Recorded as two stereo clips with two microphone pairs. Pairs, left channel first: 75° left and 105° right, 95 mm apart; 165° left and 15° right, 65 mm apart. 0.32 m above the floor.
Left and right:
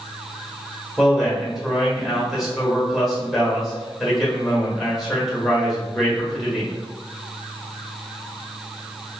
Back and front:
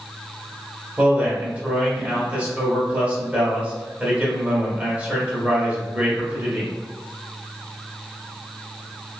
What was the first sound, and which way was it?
A man speaking, 20° right.